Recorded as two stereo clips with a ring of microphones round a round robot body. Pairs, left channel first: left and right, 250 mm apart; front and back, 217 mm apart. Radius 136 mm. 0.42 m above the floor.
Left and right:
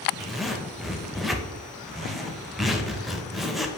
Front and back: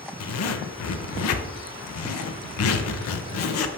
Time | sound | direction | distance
0.2 | a zipper | straight ahead | 0.6 m